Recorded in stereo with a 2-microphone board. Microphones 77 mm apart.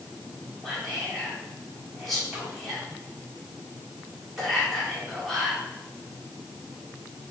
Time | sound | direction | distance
0.6 | whispering | centre (ahead or behind) | 1.5 m